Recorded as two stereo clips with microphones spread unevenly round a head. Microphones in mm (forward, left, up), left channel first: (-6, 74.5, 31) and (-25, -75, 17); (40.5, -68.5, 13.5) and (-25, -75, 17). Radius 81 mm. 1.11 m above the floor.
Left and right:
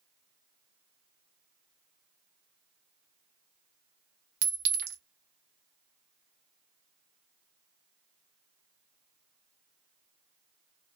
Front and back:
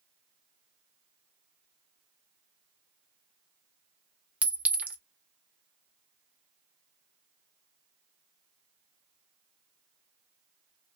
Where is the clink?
110° right, 0.8 m.